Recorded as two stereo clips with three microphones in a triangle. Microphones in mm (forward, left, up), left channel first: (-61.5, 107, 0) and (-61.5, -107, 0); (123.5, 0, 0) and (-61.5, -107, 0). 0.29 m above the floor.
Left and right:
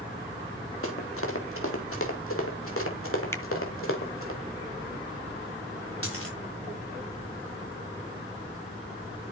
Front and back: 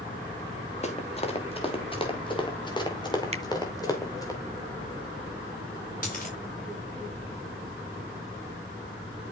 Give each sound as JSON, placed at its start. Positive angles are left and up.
{"t": 0.8, "sound": "running footsteps", "azimuth_deg": 90, "distance_m": 3.5}
{"t": 3.3, "sound": "a finger snap", "azimuth_deg": 165, "distance_m": 1.4}
{"t": 6.0, "sound": "a dropped coin", "azimuth_deg": 80, "distance_m": 9.0}